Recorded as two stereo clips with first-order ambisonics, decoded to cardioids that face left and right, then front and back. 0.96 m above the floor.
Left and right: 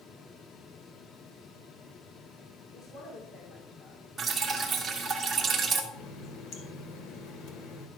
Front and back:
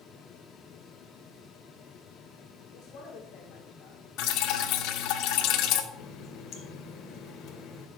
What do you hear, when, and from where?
2.7 s a woman speaking: 35° left, 3 m
4.2 s dripping: 20° right, 2 m
5.9 s a running tap: 45° left, 2 m